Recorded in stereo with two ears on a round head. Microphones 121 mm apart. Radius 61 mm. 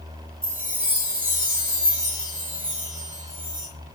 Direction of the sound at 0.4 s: 10° right (ahead or behind).